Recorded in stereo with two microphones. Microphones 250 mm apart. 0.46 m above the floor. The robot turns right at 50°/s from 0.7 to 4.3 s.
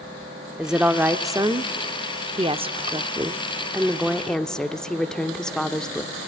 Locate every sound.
0.6 s a woman speaking: 5° right (ahead or behind), 0.7 m; by 6.1 s 5° left (ahead or behind), 0.7 m